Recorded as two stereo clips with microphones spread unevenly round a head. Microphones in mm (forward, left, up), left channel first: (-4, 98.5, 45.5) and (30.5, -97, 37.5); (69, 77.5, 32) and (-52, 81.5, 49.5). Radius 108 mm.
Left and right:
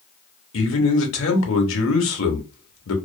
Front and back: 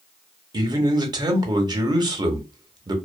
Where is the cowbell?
No cowbell in this recording.